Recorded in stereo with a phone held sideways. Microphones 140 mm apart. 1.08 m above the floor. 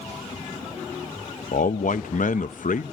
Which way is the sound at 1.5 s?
70° left (ahead or behind).